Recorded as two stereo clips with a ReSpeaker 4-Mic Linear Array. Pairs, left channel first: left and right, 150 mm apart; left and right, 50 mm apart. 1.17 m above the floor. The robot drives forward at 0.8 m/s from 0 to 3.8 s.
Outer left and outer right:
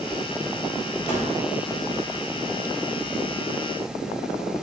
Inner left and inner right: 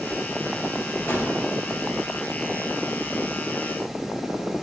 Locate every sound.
1.1 s a gunshot: 50° left (ahead or behind), 3 m; by 1.3 s 55° left (ahead or behind), 3 m